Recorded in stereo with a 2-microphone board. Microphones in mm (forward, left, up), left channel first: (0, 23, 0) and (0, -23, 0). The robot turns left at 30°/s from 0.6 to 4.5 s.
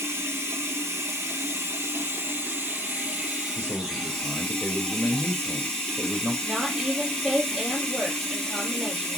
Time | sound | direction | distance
0.0 | running water | 65° right | 4 m
3.5 | a man speaking | 50° right (ahead or behind) | 4.5 m
6.4 | a woman speaking | 10° right (ahead or behind) | 4 m